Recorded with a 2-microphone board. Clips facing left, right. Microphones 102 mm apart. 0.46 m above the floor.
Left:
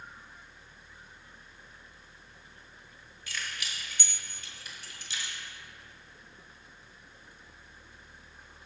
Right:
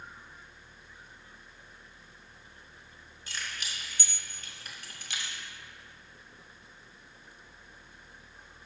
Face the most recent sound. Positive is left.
turn(degrees=-65)  # may be behind; listen again after turning